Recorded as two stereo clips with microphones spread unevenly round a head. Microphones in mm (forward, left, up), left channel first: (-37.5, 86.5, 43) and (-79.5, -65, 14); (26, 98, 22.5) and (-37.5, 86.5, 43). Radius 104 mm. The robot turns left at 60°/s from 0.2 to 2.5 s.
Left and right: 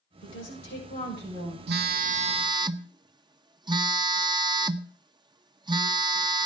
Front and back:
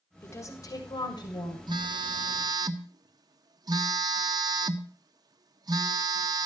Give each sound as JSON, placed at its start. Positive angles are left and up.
{"t": 0.2, "sound": "a woman speaking", "azimuth_deg": 65, "distance_m": 7.0}
{"t": 1.7, "sound": "a phone buzzing", "azimuth_deg": -120, "distance_m": 1.0}